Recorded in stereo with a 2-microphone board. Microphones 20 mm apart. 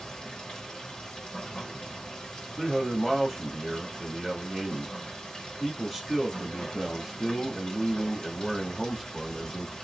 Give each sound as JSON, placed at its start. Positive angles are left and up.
{"t": 0.0, "sound": "running water", "side_deg": 50, "distance_m": 1.7}
{"t": 2.6, "sound": "a man speaking", "side_deg": -5, "distance_m": 1.1}